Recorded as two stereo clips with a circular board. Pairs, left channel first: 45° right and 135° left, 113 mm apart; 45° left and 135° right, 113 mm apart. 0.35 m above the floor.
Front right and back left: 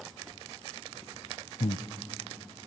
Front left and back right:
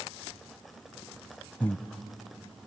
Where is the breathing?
30° right, 0.6 m.